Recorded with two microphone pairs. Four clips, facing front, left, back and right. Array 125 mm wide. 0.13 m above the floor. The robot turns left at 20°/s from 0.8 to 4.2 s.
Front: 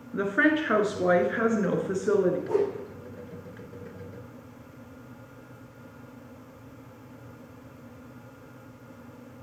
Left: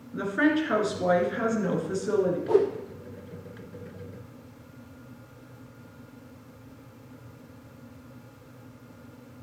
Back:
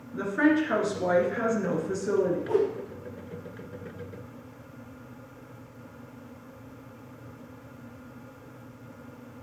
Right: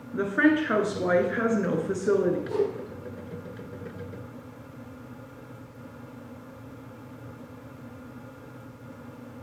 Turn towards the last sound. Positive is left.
turn(degrees=60)